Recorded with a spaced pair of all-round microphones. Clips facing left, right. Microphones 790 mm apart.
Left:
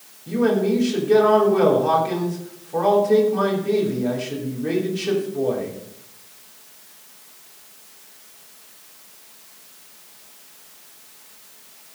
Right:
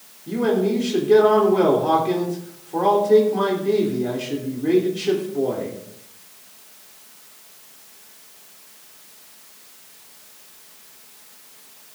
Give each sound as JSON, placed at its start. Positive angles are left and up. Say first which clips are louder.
{"t": 0.3, "sound": "a man speaking", "louder": "left 1 dB", "side_deg": 15, "distance_m": 3.0}